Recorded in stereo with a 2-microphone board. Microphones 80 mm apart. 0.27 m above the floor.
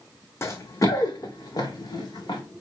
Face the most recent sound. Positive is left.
turn(degrees=50)  # may be behind; listen again after turning